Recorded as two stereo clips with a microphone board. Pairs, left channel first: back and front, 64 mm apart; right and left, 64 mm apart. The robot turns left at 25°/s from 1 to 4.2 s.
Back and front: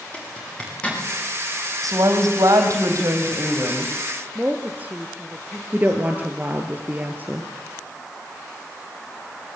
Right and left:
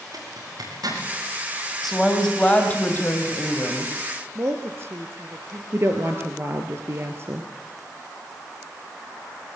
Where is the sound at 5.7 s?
50° left, 1.9 m.